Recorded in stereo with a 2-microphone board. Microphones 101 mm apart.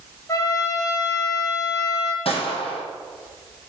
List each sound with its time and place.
0.3 s a trumpet: 35° left (ahead or behind), 1.2 m
2.2 s a gunshot: 65° left (ahead or behind), 1.9 m